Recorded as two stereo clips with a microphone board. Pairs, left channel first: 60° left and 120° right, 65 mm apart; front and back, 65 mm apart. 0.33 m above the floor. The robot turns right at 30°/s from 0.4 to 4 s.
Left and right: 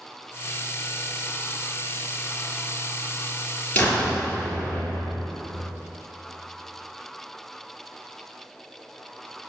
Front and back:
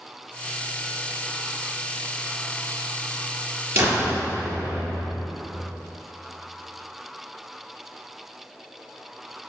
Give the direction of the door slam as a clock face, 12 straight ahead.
8 o'clock.